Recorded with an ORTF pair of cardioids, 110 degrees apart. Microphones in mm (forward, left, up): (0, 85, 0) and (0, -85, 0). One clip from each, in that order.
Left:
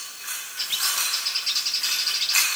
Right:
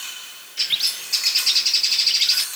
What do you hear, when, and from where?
0.6 s a bird: 30° right